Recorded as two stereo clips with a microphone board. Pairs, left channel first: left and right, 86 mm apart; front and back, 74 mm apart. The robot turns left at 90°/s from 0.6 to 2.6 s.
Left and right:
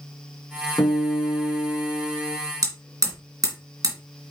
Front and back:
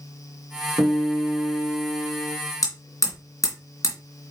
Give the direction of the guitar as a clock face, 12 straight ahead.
7 o'clock.